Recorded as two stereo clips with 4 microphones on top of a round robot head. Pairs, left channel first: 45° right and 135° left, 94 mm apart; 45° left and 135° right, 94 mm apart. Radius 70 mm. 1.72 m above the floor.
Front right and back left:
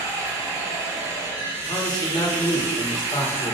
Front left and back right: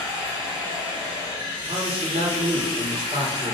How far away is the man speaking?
About 1.7 m.